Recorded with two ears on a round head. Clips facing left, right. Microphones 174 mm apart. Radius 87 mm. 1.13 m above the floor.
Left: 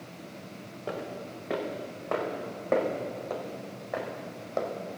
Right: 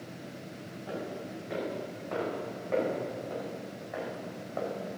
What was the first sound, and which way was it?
Footsteps, 70° left (ahead or behind).